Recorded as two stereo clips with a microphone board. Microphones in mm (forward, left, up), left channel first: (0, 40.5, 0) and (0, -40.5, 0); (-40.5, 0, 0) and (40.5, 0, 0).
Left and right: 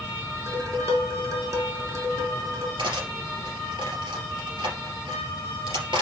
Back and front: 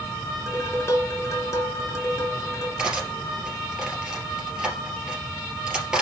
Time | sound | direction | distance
0.5 | dishes clattering | 135° right | 2.0 m
2.8 | cutlery clinking | 80° right | 3 m